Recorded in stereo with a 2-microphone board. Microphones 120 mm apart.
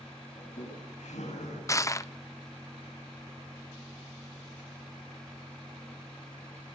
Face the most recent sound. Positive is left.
turn(degrees=25)  # may be behind; listen again after turning